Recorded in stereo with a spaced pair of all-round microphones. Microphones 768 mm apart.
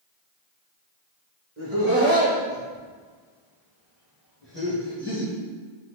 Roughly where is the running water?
I don't hear running water.